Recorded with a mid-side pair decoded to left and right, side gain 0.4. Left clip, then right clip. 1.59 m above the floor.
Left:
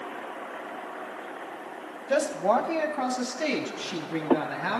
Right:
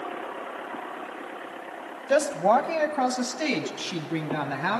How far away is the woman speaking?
About 1.7 m.